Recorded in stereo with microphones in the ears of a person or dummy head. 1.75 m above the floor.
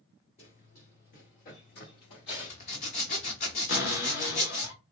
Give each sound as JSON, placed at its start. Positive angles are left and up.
{"t": 0.4, "sound": "running footsteps", "side_deg": 20, "distance_m": 1.9}
{"t": 2.3, "sound": "a zipper", "side_deg": 25, "distance_m": 0.6}
{"t": 3.7, "sound": "a cupboard door", "side_deg": 50, "distance_m": 1.0}